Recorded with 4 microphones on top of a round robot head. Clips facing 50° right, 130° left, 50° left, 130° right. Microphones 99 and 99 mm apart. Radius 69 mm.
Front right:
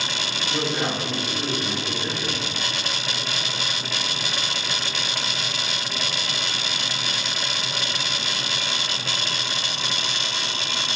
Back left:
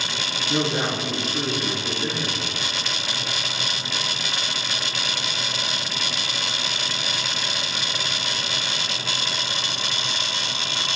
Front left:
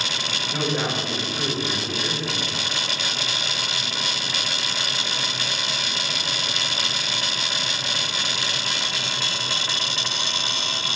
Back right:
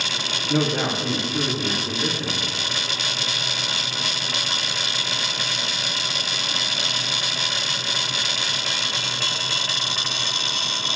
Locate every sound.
0.5 s a man speaking: 160° right, 3 m